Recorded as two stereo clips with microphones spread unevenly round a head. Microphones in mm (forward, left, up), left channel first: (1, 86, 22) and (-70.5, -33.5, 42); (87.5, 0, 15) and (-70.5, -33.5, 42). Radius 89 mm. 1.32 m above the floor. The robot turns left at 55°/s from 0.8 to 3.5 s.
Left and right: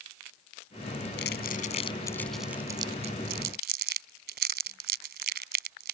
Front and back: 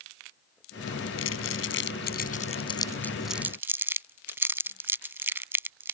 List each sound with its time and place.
1.2 s crumpling: 30° left; by 6.0 s 95° right